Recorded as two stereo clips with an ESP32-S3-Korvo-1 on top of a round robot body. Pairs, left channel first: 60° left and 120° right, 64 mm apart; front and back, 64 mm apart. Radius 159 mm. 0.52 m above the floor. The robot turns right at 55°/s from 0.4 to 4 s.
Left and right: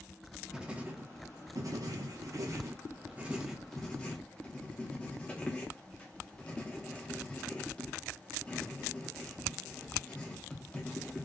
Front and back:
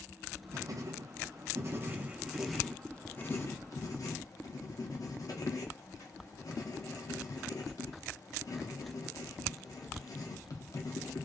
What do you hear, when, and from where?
0.5 s writing: 160° left, 0.9 m; by 11.3 s 10° right, 0.9 m